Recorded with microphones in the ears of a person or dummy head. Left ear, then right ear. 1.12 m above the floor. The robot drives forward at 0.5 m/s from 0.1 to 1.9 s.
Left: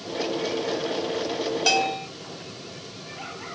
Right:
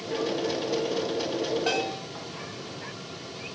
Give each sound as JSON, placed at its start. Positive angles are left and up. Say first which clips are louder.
{"t": 1.7, "sound": "a bell", "louder": "left 6 dB", "side_deg": 85, "distance_m": 1.7}